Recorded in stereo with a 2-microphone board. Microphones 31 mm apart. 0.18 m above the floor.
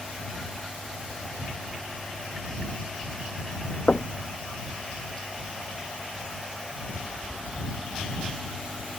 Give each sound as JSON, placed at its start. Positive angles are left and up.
{"t": 3.9, "sound": "knocking", "side_deg": 45}